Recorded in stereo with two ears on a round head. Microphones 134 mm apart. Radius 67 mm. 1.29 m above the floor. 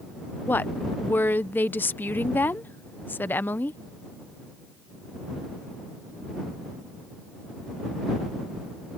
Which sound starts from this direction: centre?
A woman speaking, at 0.5 s.